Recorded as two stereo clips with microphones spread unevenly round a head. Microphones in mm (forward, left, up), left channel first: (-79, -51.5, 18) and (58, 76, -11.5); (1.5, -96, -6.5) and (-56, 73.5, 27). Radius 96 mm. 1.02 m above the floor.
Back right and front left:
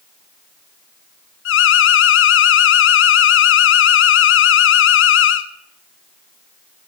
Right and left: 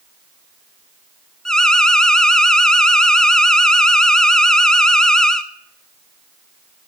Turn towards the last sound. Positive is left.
turn(degrees=-155)